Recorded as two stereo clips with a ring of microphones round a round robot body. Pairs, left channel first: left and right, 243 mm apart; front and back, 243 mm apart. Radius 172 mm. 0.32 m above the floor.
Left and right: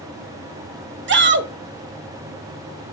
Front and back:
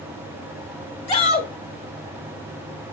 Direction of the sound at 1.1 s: 65° right.